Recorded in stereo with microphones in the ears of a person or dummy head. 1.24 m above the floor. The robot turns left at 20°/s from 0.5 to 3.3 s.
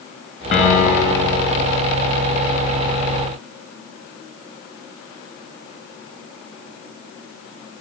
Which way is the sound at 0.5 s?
35° left (ahead or behind).